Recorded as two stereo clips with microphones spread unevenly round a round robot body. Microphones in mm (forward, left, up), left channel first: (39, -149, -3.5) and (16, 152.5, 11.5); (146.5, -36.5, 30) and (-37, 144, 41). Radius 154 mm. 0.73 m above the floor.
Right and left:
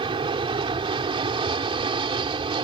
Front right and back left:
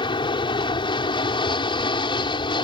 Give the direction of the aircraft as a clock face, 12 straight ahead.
11 o'clock.